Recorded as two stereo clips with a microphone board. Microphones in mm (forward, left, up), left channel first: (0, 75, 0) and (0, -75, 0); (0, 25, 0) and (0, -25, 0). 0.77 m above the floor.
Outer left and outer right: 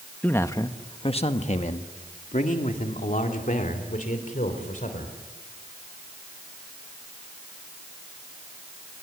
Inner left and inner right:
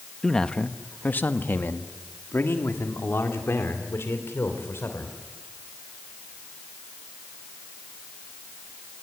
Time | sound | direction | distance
0.2 | a man speaking | 10° left (ahead or behind) | 1.0 m